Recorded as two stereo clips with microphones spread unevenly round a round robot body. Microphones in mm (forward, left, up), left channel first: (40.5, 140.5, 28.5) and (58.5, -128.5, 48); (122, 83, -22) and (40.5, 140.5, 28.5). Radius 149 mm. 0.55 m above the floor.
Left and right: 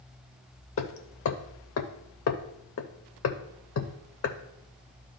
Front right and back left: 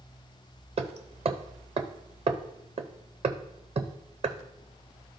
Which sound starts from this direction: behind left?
Hammering, at 0.8 s.